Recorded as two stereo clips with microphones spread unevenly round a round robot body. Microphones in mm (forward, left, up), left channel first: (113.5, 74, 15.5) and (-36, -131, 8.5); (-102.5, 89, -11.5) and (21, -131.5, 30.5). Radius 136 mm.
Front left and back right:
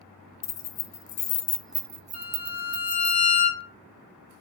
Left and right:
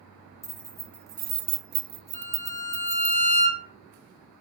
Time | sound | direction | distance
0.4 | keys jangling | 45° left | 1.0 m
2.1 | a violin | 90° left | 2 m